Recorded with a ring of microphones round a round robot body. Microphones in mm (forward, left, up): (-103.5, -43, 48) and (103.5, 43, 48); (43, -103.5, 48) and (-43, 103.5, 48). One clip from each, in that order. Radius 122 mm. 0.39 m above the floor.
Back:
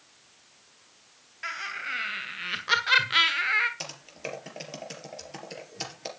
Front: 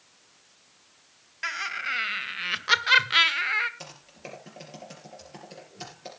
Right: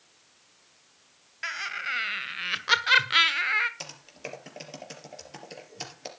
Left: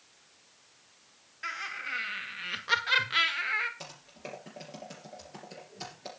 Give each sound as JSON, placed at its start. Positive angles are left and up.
{"t": 1.4, "sound": "laughter", "azimuth_deg": -30, "distance_m": 3.0}
{"t": 3.8, "sound": "typing on a keyboard", "azimuth_deg": -105, "distance_m": 3.5}